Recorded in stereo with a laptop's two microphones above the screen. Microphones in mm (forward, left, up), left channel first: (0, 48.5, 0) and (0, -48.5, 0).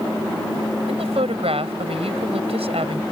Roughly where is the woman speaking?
Right.